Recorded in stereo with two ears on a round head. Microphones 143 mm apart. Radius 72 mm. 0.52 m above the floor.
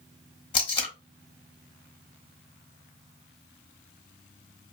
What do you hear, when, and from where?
0.5 s tape being pulled: 30° left (ahead or behind), 1.0 m